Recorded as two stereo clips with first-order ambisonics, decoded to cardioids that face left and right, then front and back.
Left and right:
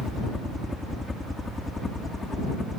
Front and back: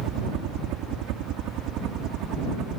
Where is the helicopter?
170° left; by 2.8 s 165° left.